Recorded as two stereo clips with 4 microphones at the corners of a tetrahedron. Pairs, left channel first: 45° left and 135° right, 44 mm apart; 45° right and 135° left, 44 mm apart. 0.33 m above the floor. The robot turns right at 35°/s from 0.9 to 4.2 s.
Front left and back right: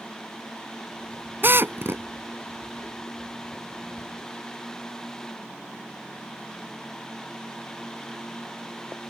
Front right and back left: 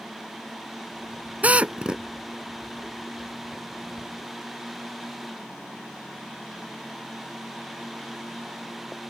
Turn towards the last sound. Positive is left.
turn(degrees=-75)